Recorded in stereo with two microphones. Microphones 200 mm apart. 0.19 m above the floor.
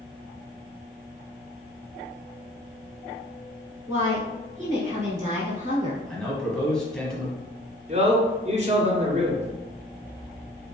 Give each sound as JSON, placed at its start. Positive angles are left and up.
{"t": 3.9, "sound": "a woman speaking", "side_deg": -20, "distance_m": 1.6}
{"t": 6.1, "sound": "a man speaking", "side_deg": 5, "distance_m": 1.1}
{"t": 7.9, "sound": "a man speaking", "side_deg": -35, "distance_m": 1.5}